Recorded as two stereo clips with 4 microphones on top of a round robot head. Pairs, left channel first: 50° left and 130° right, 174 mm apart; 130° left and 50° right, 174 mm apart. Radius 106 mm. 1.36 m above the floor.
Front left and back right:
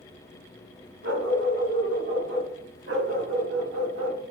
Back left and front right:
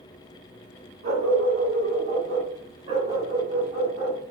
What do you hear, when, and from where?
1.0 s a dog barking: 110° right, 5.5 m; by 4.2 s 125° right, 4 m